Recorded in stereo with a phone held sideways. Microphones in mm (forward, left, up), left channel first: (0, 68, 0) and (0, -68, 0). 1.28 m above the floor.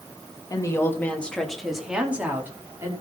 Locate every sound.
0.5 s a woman speaking: 30° left (ahead or behind), 2.5 m; by 2.9 s 20° right (ahead or behind), 4 m